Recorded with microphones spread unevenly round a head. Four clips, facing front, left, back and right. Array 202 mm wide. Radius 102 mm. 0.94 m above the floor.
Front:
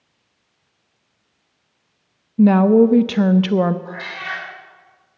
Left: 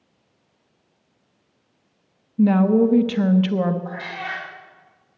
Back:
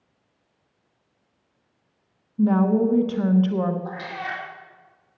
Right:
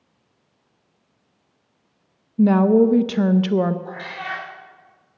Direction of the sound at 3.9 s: 145° right.